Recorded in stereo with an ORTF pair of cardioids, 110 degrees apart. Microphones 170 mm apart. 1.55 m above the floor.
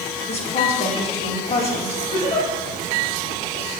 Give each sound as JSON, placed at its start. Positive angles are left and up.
{"t": 0.3, "sound": "a woman speaking", "azimuth_deg": 40, "distance_m": 1.8}
{"t": 2.1, "sound": "a giggle", "azimuth_deg": 25, "distance_m": 2.5}